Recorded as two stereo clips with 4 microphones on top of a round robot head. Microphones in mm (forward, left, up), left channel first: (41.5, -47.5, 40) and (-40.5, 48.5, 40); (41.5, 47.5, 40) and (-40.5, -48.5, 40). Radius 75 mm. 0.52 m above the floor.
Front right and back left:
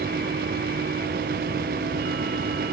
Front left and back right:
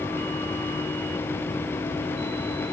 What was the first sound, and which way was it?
Only background noise.